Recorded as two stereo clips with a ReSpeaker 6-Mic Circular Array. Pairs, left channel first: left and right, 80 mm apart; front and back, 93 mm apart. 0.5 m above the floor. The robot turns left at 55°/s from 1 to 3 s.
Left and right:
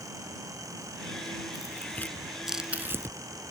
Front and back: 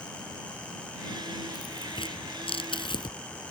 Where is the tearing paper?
45° left; by 3.2 s 35° right.